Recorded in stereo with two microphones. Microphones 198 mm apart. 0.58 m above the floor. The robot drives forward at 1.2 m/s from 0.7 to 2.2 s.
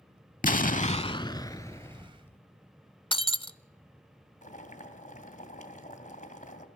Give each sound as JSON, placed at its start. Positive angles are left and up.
{"t": 0.4, "sound": "an explosion", "side_deg": 45, "distance_m": 0.6}
{"t": 3.1, "sound": "breaking glass", "side_deg": 25, "distance_m": 0.6}
{"t": 4.4, "sound": "boiling", "side_deg": 40, "distance_m": 2.5}